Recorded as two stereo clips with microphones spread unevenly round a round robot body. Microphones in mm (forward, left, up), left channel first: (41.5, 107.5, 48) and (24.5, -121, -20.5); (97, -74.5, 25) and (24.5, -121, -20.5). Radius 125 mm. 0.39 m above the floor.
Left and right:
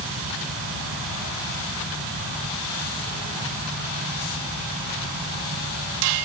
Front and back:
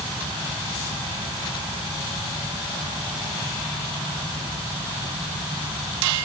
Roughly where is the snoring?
I don't hear snoring.